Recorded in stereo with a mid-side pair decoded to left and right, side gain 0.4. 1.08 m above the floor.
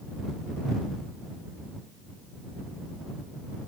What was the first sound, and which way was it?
Only background noise.